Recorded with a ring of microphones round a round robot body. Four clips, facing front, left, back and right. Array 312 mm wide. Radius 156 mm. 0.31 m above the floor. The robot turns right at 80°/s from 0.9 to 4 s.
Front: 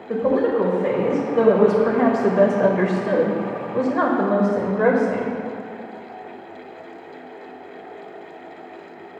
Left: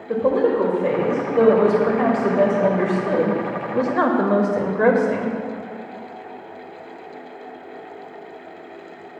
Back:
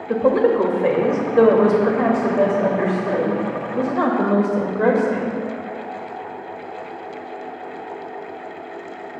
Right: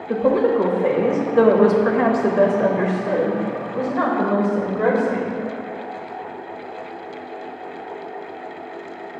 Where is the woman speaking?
175° right, 1.0 m; by 5.4 s 75° left, 1.0 m.